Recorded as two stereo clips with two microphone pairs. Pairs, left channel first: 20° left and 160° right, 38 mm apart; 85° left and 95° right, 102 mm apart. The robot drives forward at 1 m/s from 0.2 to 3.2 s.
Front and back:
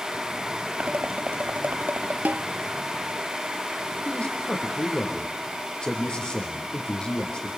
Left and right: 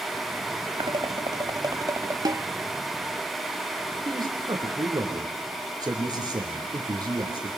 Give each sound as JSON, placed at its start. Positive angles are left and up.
{"t": 0.8, "sound": "dishes clattering", "azimuth_deg": -120, "distance_m": 1.5}
{"t": 2.2, "sound": "a snare drum", "azimuth_deg": -135, "distance_m": 0.7}
{"t": 4.0, "sound": "a man speaking", "azimuth_deg": -50, "distance_m": 5.5}